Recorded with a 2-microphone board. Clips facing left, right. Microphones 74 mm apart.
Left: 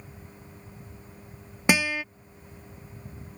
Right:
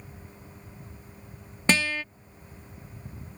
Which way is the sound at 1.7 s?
10° left (ahead or behind).